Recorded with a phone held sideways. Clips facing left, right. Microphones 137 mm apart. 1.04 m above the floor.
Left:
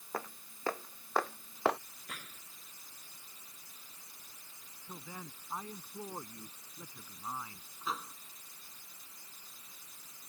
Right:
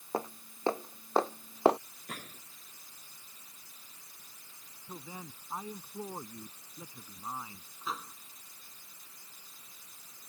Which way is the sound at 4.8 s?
15° right (ahead or behind).